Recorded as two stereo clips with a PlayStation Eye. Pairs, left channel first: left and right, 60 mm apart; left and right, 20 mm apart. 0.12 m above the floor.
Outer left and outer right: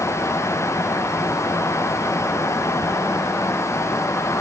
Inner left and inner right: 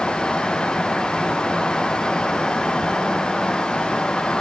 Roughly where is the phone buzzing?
No phone buzzing in this recording.